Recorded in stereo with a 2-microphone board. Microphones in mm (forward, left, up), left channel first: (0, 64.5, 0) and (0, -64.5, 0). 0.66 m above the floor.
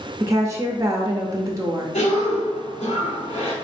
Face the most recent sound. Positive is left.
turn(degrees=60)  # may be behind; listen again after turning